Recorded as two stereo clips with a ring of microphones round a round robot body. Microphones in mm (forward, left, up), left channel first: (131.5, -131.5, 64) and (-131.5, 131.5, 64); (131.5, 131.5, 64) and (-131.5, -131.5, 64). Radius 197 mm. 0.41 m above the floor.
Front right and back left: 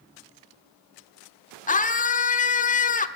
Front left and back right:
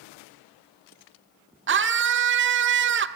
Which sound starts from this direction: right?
A scream, at 1.7 s.